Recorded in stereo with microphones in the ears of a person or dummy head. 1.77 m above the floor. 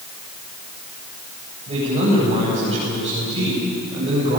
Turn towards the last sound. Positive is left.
turn(degrees=-20)  # may be behind; listen again after turning